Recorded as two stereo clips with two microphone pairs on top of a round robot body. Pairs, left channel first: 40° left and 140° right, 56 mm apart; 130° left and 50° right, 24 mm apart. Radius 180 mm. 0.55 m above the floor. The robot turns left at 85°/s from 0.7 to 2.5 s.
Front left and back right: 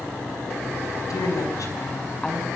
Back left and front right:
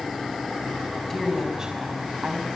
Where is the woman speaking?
60° left, 4.5 m; by 2.5 s 60° right, 4.5 m.